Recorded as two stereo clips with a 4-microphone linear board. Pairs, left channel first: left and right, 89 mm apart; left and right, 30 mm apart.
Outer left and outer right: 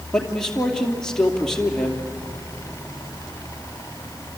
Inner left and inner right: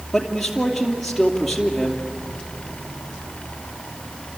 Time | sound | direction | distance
0.1 | a man speaking | 5° left (ahead or behind) | 2.5 m